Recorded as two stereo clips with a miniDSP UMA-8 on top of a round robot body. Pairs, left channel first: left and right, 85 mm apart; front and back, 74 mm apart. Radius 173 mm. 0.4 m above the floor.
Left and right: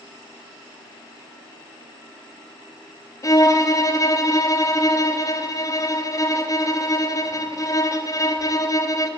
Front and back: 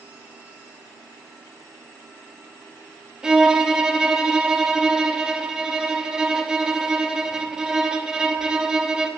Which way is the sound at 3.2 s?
105° left.